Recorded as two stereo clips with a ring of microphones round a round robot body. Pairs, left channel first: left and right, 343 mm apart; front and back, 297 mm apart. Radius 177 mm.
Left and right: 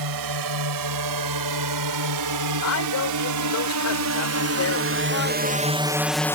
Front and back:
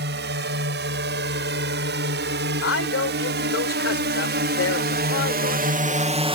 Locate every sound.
0.0 s a drone: 120° right; by 6.4 s 155° left
2.6 s a man speaking: 45° left